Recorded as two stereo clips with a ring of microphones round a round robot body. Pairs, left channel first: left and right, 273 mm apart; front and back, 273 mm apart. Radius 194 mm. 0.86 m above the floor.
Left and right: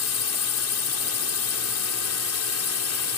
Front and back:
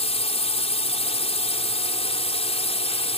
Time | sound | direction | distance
0.0 | a drone | 65° left | ?